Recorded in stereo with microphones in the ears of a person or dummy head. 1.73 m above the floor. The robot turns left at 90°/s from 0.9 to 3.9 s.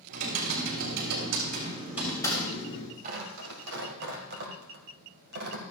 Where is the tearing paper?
50° right (ahead or behind), 1.9 m; by 5.6 s 55° right (ahead or behind), 1.9 m.